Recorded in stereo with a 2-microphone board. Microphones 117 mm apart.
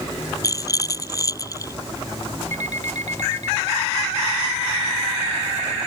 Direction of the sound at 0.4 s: 30° left (ahead or behind).